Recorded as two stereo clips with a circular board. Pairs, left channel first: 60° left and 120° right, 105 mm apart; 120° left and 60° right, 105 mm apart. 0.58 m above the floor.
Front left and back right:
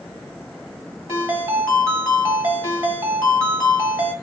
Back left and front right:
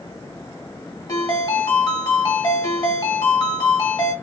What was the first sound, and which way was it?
A ringtone, 170° left.